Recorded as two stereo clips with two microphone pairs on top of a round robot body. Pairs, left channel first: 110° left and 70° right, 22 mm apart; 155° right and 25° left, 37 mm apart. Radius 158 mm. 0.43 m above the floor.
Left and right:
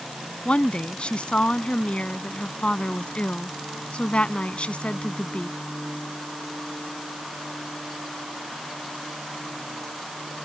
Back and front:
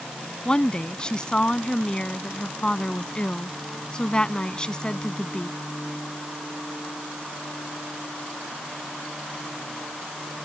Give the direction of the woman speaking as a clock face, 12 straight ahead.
7 o'clock.